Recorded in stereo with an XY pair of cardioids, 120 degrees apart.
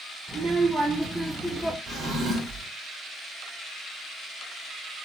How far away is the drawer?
About 1.5 m.